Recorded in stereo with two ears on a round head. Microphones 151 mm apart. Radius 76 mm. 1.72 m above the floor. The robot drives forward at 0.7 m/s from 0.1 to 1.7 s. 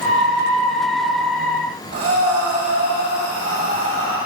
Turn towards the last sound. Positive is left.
turn(degrees=-80)